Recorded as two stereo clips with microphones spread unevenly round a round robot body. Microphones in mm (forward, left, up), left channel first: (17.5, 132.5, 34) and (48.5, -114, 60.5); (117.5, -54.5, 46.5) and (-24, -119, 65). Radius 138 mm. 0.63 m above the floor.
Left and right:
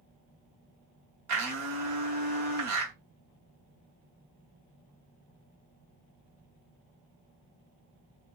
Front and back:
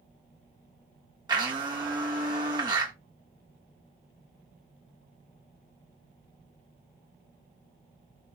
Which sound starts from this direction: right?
A blender, at 1.3 s.